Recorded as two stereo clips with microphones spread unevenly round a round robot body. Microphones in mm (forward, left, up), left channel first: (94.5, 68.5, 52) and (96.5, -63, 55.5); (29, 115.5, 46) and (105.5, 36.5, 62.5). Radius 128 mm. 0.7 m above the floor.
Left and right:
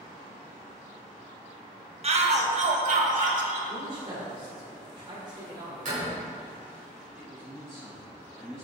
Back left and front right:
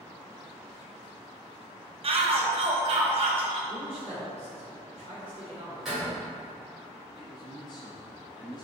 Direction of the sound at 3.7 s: 150° right.